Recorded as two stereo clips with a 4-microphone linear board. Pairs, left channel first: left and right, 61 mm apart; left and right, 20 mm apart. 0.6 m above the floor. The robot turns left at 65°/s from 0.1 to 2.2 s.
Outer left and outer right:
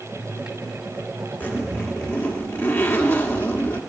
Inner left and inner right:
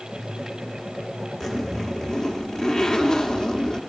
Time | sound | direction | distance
1.4 | a zipper | 140° left | 1.1 m